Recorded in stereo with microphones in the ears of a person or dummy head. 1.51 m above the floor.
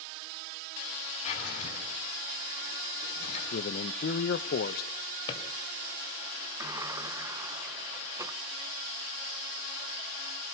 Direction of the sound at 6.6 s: 15° right (ahead or behind).